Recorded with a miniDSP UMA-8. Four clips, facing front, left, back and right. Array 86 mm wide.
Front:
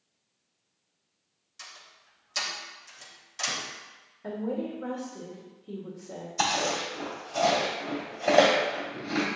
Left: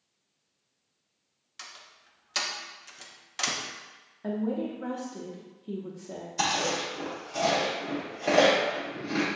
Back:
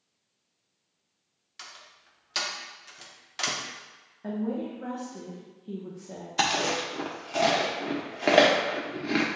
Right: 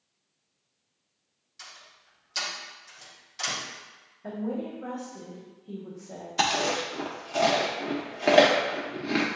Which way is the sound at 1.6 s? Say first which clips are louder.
Left 1 dB, back 2 dB; 135° left.